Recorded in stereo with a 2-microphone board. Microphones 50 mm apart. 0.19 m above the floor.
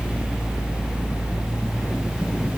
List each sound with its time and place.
Only background noise.